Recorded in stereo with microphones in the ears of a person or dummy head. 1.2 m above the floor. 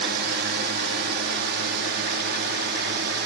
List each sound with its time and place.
0.0 s a drone: 50° right (ahead or behind); by 3.3 s 55° right (ahead or behind)